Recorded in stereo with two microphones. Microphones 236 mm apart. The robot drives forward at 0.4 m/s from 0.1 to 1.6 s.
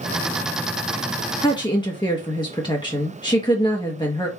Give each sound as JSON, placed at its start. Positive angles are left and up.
{"t": 1.4, "sound": "a woman speaking", "side_deg": 20, "distance_m": 0.8}